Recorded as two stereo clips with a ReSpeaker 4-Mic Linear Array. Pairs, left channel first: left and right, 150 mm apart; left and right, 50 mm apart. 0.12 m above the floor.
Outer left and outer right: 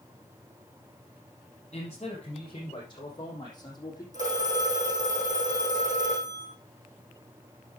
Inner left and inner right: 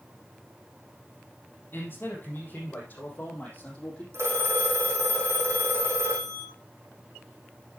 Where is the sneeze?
No sneeze in this recording.